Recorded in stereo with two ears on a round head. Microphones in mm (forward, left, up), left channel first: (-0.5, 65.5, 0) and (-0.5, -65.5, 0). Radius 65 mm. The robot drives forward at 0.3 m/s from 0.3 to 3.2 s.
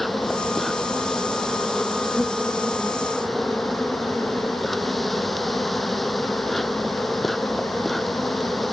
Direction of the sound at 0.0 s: Centre (ahead or behind).